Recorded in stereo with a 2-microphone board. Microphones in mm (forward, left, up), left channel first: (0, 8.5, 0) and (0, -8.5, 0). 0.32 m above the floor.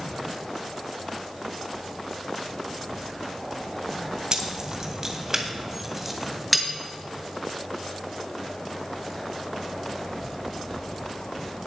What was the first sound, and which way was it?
Keys jangling, 40° right (ahead or behind).